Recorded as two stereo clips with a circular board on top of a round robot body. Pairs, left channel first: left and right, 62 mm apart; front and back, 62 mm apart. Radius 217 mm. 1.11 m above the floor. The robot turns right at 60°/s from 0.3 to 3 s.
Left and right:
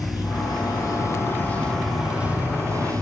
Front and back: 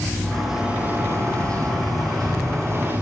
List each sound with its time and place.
0.0 s running water: 85° left, 6.5 m; by 3.0 s 115° right, 6.5 m